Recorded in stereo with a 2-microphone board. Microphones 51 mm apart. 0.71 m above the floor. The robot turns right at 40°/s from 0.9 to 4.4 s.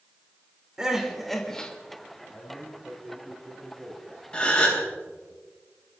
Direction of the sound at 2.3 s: 30° left (ahead or behind).